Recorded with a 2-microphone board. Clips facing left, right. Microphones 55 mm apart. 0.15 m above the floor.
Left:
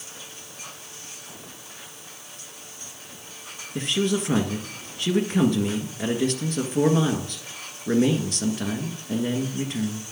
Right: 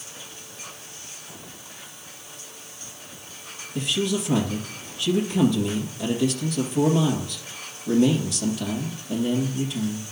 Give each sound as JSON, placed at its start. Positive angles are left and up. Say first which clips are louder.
{"t": 3.8, "sound": "a man speaking", "louder": "left 1 dB", "side_deg": 50, "distance_m": 1.8}